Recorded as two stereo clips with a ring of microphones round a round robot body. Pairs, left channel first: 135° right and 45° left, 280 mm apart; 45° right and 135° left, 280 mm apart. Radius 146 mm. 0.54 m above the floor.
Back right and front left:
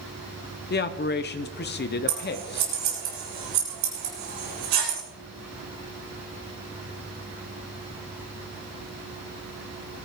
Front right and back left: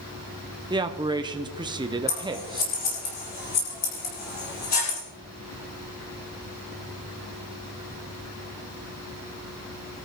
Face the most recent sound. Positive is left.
turn(degrees=15)